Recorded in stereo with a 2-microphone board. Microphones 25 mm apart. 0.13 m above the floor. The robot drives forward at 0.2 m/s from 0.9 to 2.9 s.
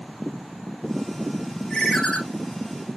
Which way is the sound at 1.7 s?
35° left (ahead or behind).